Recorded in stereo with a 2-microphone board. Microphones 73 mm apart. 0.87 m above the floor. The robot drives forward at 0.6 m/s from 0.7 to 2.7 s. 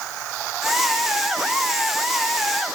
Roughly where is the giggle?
No giggle in this recording.